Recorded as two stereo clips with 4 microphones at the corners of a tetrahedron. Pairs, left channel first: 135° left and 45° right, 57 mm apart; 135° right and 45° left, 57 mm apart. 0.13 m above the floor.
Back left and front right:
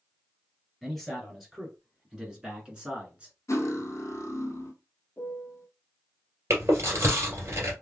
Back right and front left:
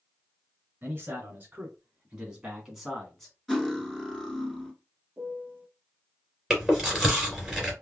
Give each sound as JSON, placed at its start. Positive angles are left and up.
{"t": 0.8, "sound": "a man speaking", "azimuth_deg": 40, "distance_m": 1.9}
{"t": 3.5, "sound": "cutlery clinking", "azimuth_deg": 140, "distance_m": 1.2}
{"t": 5.2, "sound": "a piano", "azimuth_deg": 100, "distance_m": 0.6}
{"t": 6.5, "sound": "chewing", "azimuth_deg": -35, "distance_m": 2.0}